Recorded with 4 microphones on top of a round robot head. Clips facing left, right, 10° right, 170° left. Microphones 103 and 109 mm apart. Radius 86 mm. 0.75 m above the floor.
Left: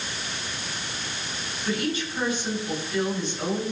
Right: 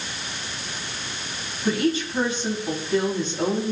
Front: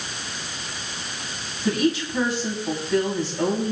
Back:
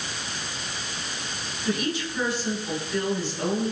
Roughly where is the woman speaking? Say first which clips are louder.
Right 5 dB, front 6 dB; ahead right.